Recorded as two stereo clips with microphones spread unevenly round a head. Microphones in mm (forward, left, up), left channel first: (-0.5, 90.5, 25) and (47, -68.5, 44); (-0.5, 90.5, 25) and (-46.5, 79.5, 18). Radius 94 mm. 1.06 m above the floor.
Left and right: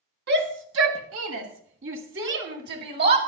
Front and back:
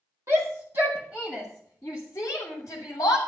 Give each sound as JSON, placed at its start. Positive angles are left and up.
{"t": 0.3, "sound": "a shout", "azimuth_deg": -110, "distance_m": 1.9}